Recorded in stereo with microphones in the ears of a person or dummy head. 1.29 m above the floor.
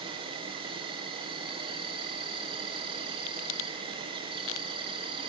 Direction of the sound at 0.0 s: 30° right (ahead or behind).